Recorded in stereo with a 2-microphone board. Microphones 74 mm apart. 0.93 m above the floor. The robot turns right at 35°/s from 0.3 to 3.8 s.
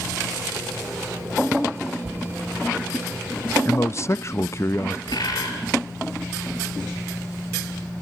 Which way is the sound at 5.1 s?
65° left (ahead or behind).